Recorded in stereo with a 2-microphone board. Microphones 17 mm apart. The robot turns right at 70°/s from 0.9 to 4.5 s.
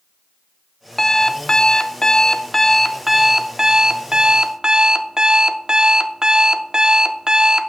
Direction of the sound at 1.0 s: 35° left.